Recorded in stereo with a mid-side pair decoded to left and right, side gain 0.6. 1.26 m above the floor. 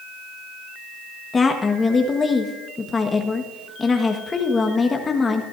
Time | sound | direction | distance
1.3 | a woman speaking | 25° left | 1.5 m